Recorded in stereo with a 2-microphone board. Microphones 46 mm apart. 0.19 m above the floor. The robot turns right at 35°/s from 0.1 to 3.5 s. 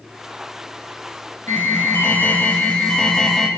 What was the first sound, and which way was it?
An alarm, 105° left.